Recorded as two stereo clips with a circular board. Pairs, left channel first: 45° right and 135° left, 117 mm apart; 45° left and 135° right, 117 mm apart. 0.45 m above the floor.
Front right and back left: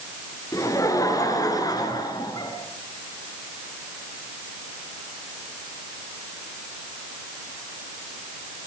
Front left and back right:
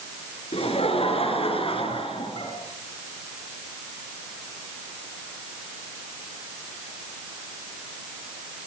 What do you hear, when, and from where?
0.5 s laughter: 15° left, 8 m; by 2.5 s 10° left, 7.5 m